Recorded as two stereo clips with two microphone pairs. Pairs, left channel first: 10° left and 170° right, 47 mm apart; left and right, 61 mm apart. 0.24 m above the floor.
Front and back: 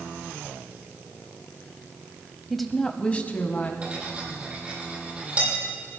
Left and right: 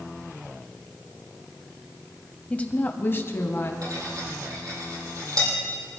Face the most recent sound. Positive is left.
turn(degrees=-105)